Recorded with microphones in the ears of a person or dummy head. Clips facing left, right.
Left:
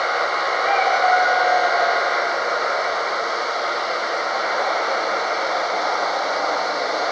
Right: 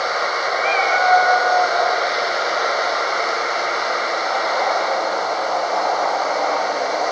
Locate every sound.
0.6 s a cat meowing: 35° right (ahead or behind), 3.5 m